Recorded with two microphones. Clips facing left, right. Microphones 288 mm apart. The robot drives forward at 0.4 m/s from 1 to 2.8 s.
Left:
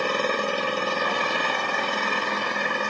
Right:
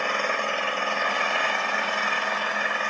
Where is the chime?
No chime in this recording.